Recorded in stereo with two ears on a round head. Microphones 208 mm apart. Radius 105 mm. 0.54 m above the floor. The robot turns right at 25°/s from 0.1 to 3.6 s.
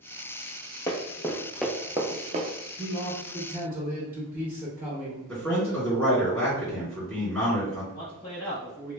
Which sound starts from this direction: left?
A man speaking, at 7.9 s.